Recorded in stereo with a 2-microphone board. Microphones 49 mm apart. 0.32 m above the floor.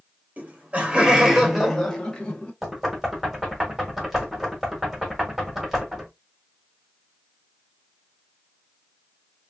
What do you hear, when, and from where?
0.4 s laughter: 35° right (ahead or behind), 1.1 m; by 2.5 s 25° left (ahead or behind), 1.0 m
2.6 s knocking: 5° right (ahead or behind), 1.2 m